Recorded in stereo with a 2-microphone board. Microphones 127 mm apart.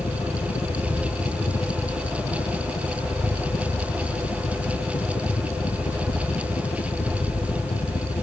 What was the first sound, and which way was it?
A helicopter, 60° left (ahead or behind).